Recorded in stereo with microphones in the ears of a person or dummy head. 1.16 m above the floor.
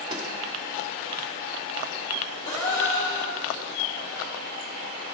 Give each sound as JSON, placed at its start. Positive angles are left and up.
{"t": 0.1, "sound": "a snare drum", "side_deg": -30, "distance_m": 1.7}
{"t": 2.5, "sound": "a gasp", "side_deg": 25, "distance_m": 3.5}